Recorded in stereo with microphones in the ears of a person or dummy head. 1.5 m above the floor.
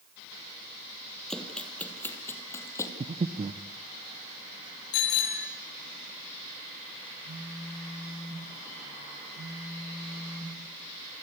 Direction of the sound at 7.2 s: 85° right.